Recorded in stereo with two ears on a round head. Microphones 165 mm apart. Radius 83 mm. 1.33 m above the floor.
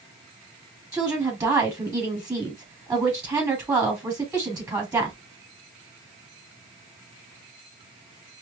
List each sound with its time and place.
0.9 s a woman speaking: 20° right (ahead or behind), 3 m